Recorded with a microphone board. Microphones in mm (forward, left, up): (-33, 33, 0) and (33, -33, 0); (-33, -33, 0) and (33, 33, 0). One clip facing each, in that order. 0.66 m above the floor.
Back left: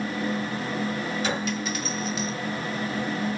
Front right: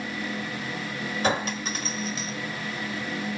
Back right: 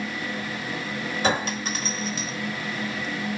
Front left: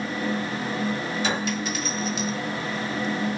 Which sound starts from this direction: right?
A clink, at 1.2 s.